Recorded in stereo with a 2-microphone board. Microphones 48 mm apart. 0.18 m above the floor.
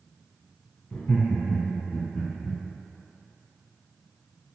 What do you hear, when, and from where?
0.9 s laughter: 35° left (ahead or behind), 1.3 m; by 2.6 s 45° left (ahead or behind), 3 m